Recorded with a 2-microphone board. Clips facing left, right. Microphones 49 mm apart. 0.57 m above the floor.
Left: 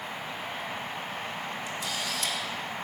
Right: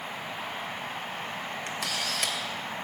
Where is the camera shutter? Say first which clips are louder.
Right 3 dB; 70° right (ahead or behind), 2 m.